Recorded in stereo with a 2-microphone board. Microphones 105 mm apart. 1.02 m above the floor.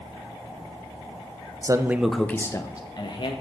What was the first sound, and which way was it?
A man speaking, 40° right (ahead or behind).